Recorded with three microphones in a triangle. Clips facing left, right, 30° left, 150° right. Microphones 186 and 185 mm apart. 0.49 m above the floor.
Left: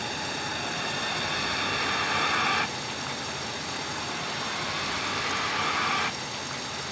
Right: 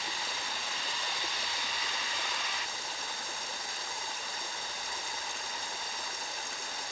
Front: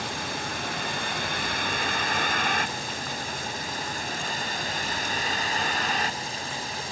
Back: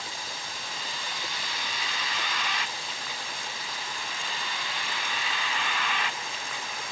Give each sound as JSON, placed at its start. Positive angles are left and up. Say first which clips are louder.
{"t": 0.0, "sound": "a vehicle", "louder": "left 7 dB, front 8 dB", "azimuth_deg": 55}